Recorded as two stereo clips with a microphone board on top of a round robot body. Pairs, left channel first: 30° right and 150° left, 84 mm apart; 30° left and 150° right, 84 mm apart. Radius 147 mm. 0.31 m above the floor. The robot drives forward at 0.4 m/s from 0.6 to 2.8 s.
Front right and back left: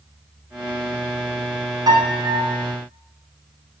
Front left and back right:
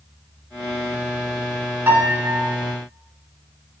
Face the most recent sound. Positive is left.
turn(degrees=160)